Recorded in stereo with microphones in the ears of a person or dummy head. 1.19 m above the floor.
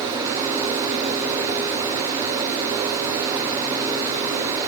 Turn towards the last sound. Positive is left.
No sound to turn to.